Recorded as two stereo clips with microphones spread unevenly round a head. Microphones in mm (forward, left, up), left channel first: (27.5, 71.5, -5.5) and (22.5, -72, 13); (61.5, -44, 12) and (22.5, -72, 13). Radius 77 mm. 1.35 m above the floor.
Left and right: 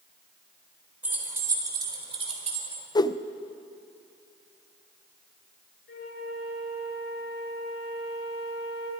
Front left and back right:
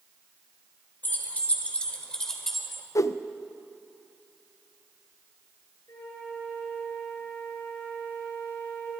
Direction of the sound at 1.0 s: 15° right.